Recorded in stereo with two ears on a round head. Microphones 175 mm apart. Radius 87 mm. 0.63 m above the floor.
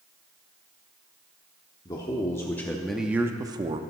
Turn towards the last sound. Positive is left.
turn(degrees=-30)  # may be behind; listen again after turning